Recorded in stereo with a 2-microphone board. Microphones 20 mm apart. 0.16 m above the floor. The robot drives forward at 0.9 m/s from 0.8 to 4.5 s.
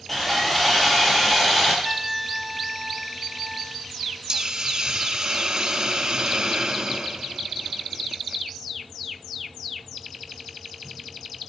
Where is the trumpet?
20° right (ahead or behind), 0.5 m; by 3.8 s 5° right (ahead or behind), 2 m.